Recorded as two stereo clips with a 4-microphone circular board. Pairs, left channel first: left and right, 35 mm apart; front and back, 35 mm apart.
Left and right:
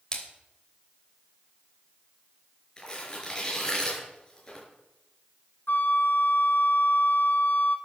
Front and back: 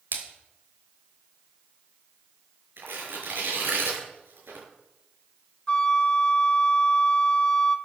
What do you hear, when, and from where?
0.1 s a splash: 155° left, 3 m
2.8 s tearing paper: 160° left, 6 m
5.7 s a flute: 65° left, 1.6 m